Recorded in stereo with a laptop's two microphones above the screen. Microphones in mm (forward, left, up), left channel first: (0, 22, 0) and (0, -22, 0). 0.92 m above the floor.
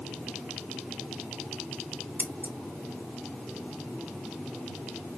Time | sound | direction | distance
2.2 | scissors | 45° right (ahead or behind) | 0.8 m